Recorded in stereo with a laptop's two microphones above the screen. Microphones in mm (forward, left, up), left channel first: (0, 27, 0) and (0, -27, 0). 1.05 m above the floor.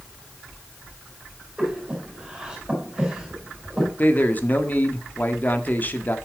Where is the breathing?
15° right (ahead or behind), 4.5 m.